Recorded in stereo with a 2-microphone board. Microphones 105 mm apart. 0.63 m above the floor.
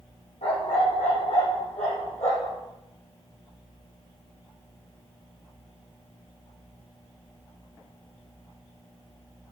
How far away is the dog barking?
About 5.5 m.